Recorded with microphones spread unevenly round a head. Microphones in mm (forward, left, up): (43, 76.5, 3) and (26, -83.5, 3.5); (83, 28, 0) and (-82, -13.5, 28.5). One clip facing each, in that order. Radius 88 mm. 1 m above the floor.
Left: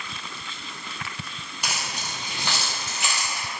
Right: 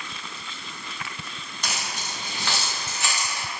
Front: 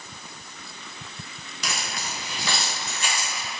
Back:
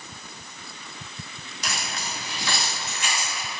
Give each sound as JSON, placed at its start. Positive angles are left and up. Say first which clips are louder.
{"t": 1.6, "sound": "keys jangling", "louder": "even, even", "azimuth_deg": 5, "distance_m": 0.8}